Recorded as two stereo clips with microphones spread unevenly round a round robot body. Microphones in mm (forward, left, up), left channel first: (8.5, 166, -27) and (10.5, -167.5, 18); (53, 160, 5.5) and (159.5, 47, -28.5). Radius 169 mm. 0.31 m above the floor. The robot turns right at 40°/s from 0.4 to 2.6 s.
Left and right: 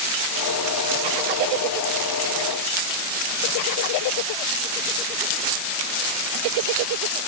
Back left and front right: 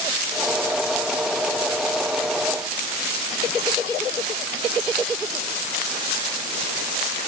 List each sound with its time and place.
Only background noise.